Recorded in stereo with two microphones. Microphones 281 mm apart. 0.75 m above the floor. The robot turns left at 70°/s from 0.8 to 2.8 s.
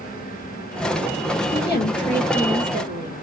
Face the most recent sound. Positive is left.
turn(degrees=-40)